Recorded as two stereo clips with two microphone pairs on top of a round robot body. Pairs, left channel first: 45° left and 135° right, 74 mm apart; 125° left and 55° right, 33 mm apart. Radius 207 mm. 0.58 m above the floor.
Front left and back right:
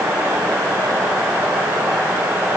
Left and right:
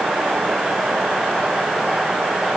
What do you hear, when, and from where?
Only background noise.